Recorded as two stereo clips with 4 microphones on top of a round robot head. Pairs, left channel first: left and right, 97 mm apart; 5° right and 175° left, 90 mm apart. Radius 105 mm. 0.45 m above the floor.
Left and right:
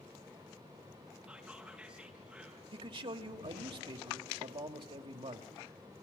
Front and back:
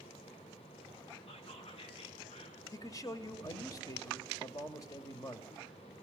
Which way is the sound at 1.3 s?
10° right.